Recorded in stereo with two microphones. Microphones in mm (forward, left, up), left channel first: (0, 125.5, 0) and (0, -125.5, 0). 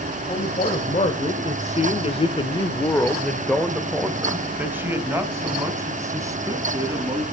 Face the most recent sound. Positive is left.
turn(degrees=-15)  # may be behind; listen again after turning